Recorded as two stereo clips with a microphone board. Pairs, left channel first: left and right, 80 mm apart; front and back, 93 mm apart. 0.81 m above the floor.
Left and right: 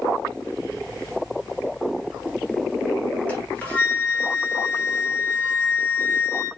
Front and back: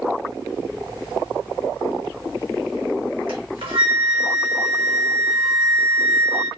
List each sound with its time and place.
3.3 s a flute: 160° left, 2.5 m